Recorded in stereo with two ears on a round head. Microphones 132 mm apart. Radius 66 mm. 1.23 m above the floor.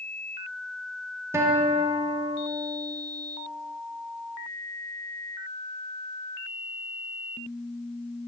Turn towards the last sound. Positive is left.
turn(degrees=-20)  # may be behind; listen again after turning